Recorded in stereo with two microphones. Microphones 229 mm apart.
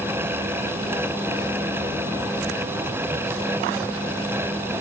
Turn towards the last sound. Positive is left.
No sound to turn to.